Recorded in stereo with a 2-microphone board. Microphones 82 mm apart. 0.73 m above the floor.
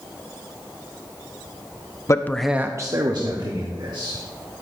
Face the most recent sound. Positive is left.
turn(degrees=-70)  # may be behind; listen again after turning